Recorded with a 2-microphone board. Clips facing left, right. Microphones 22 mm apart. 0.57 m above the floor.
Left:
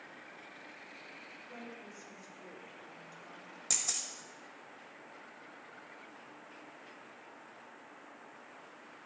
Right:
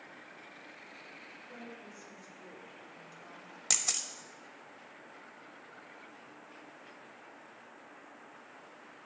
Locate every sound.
1.5 s a woman speaking: 15° left (ahead or behind), 2 m; by 3.6 s 15° right (ahead or behind), 1.5 m
3.7 s a camera shutter: 40° right (ahead or behind), 0.6 m